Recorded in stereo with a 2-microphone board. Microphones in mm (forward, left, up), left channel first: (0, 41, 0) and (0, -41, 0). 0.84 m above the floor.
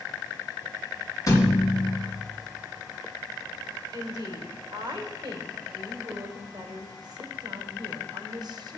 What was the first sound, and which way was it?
A thud, 40° left (ahead or behind).